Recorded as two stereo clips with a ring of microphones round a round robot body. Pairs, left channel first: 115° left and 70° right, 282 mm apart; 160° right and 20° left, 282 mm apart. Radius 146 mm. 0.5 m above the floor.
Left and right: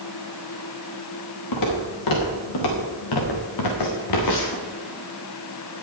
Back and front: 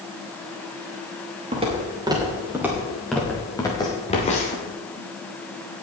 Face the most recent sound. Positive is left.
turn(degrees=140)